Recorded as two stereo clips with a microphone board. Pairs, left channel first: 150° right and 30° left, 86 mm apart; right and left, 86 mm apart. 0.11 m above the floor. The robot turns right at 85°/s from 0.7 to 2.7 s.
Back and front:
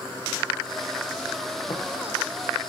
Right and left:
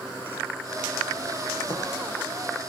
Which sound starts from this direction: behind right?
Tapping, at 1.7 s.